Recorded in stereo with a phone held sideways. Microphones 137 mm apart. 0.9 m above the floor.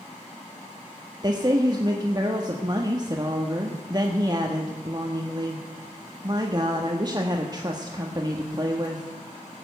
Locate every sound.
1.2 s a woman speaking: 30° right (ahead or behind), 1.2 m